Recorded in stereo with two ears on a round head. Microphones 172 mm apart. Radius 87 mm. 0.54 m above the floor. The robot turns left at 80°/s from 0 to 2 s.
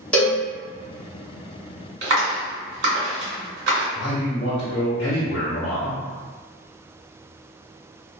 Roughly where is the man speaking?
Left.